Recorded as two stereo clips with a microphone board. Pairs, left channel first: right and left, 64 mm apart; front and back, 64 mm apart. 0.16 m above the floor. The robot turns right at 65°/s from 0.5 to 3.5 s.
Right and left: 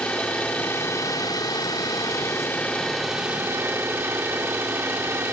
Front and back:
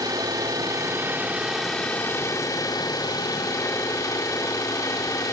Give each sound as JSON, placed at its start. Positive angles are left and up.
{"t": 0.0, "sound": "an engine running", "azimuth_deg": -160, "distance_m": 4.0}